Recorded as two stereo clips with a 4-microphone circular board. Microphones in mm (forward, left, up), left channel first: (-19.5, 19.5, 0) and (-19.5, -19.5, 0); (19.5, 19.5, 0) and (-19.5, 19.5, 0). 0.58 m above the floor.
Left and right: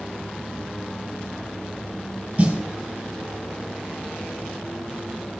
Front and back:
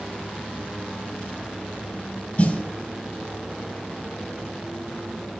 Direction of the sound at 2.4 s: 35° right.